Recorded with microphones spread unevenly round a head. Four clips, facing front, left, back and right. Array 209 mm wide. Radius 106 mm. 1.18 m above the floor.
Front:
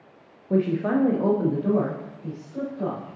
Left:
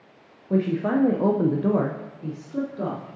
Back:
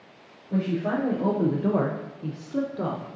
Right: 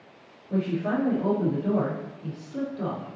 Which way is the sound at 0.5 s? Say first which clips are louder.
Left 4 dB, front 4 dB; 40° left.